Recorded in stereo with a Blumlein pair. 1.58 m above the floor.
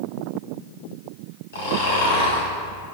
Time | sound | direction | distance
1.5 | snoring | 60° left | 1.6 m